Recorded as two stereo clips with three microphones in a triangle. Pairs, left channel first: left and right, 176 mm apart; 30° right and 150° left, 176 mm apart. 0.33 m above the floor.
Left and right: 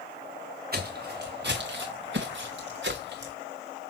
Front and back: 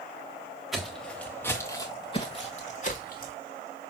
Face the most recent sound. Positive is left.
turn(degrees=-70)